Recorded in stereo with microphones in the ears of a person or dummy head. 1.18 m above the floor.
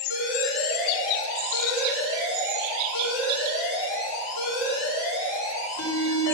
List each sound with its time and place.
0.1 s an alarm: 75° left (ahead or behind), 6 m